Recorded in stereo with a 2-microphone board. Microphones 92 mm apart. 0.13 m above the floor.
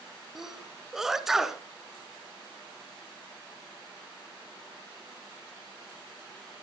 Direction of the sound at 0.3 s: 5° right (ahead or behind).